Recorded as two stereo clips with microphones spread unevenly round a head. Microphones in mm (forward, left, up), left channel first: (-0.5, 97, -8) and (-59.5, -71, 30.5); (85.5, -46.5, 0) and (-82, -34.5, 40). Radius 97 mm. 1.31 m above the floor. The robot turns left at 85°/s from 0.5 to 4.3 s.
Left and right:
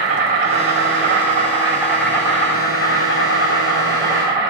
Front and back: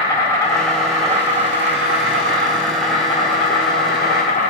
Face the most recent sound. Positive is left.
turn(degrees=-35)